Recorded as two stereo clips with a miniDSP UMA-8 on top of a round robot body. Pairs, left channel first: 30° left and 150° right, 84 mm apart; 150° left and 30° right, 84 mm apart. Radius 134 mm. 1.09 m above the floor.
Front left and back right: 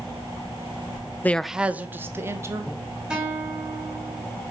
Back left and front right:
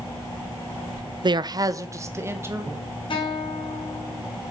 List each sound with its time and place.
1.2 s a man speaking: 35° right, 0.6 m; by 2.7 s 95° right, 2.5 m
3.1 s a guitar: 130° left, 4 m